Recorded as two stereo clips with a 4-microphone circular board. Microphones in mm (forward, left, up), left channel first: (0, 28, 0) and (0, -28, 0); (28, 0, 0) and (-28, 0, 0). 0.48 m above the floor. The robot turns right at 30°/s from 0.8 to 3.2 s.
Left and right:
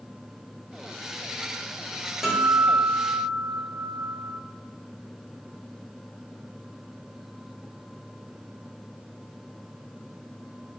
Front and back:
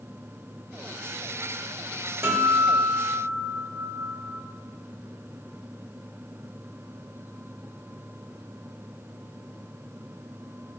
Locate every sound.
2.2 s a guitar: 170° right, 0.9 m; by 4.3 s 140° right, 0.9 m